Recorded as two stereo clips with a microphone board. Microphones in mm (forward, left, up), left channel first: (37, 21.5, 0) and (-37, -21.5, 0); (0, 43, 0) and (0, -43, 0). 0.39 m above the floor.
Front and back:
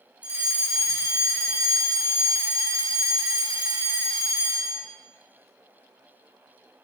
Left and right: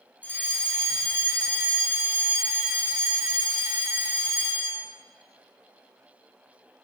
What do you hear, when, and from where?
0.2 s a fire alarm: 150° left, 2.5 m